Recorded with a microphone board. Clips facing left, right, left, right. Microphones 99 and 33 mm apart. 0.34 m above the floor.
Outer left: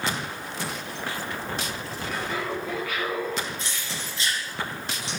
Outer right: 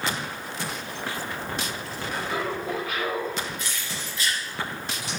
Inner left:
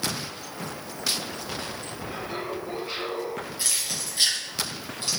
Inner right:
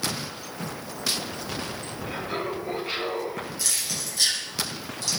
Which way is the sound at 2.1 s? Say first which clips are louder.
Outer right 1 dB, inner right 3 dB; 15° right (ahead or behind).